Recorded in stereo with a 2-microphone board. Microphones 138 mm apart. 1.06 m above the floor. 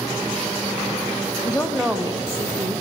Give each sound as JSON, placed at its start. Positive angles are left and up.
{"t": 1.4, "sound": "a woman speaking", "side_deg": 20, "distance_m": 0.9}